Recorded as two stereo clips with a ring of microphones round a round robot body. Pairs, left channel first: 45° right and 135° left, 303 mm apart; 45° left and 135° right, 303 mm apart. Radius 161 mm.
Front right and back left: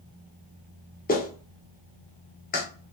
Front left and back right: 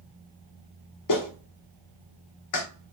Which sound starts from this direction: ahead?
A clap, at 1.1 s.